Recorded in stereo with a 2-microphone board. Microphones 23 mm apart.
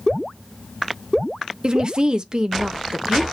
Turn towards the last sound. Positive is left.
turn(degrees=-35)  # may be behind; listen again after turning